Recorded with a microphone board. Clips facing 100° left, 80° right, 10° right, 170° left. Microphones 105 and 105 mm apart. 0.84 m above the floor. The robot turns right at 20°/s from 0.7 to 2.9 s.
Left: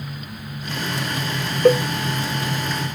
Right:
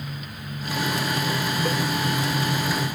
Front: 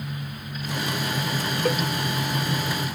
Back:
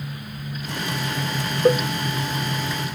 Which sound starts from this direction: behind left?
A cowbell, at 1.6 s.